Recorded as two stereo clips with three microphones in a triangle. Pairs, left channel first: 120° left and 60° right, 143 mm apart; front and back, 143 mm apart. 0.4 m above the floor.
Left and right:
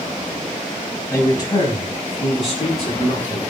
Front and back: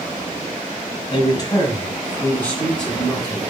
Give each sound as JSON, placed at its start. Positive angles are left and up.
{"t": 1.1, "sound": "a man speaking", "azimuth_deg": 55, "distance_m": 2.5}